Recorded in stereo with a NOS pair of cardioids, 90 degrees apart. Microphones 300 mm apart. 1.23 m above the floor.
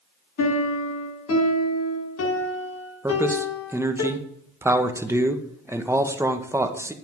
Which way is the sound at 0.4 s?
55° left.